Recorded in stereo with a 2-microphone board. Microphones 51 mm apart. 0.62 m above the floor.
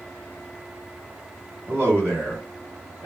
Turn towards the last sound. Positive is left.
turn(degrees=-65)  # may be behind; listen again after turning